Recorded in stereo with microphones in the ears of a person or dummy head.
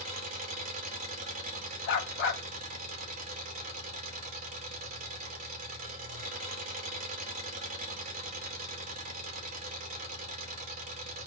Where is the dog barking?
45° left (ahead or behind), 1.3 m.